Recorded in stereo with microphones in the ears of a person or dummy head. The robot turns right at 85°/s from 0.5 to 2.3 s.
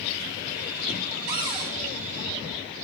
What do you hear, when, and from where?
1.3 s a cupboard door: 60° right, 8 m; by 1.7 s 20° right, 8 m